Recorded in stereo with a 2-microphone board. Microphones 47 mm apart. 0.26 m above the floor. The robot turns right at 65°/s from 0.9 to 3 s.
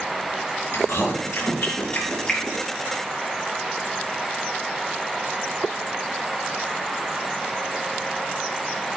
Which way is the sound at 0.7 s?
70° left (ahead or behind).